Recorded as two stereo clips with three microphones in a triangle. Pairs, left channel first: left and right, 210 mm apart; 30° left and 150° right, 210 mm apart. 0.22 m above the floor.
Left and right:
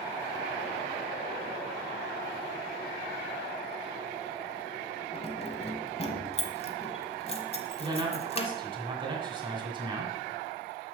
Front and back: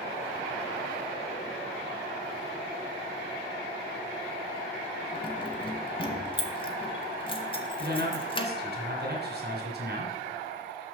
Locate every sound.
5.1 s keys jangling: 70° left, 0.9 m
7.8 s a man speaking: 150° right, 2 m